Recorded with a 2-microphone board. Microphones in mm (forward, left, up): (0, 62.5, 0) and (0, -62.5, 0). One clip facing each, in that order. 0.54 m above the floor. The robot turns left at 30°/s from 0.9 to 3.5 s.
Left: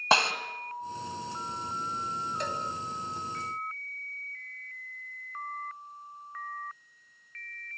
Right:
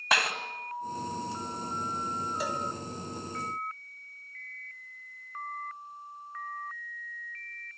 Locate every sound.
0.1 s a snare drum: 30° left (ahead or behind), 1.9 m
2.4 s a cowbell: 5° right (ahead or behind), 2.5 m; by 2.6 s 10° right (ahead or behind), 2.5 m